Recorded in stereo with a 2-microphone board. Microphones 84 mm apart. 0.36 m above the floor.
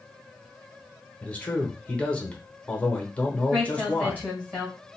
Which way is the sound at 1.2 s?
15° left (ahead or behind).